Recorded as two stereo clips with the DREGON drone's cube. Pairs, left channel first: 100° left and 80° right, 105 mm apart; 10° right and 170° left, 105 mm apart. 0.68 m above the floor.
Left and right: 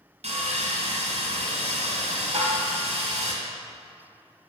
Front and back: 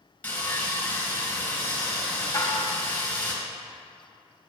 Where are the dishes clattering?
75° right, 1.1 m.